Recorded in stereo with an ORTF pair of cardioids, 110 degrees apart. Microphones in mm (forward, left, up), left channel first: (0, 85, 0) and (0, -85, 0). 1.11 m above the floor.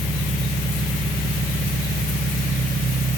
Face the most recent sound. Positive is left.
turn(degrees=-25)